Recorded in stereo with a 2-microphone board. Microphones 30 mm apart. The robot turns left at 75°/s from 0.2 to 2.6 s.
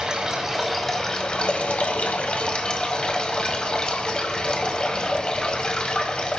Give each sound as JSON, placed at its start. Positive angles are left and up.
{"t": 0.0, "sound": "running water", "azimuth_deg": -140, "distance_m": 1.3}